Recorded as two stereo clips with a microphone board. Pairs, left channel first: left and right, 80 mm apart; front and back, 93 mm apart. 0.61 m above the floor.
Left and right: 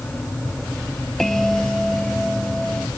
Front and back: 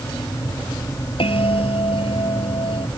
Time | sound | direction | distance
1.2 | a bell | 5° left | ?